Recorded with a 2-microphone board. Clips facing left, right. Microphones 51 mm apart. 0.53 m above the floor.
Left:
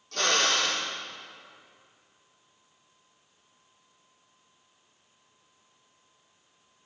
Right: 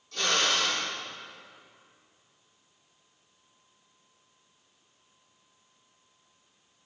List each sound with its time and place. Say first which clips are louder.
0.1 s a drill: left 1 dB; 60° left (ahead or behind), 8.5 m